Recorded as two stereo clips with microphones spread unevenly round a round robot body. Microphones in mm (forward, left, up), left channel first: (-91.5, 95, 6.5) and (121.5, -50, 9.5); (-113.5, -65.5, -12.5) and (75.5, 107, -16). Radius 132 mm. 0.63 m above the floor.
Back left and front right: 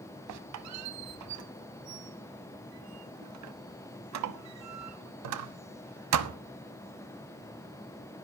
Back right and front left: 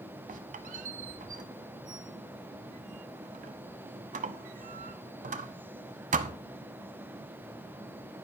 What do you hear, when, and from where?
0.3 s a squeak: 20° right, 0.9 m